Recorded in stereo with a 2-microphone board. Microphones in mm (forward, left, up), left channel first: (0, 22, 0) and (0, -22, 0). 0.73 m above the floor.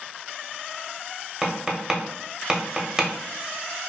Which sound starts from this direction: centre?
Tapping, at 1.4 s.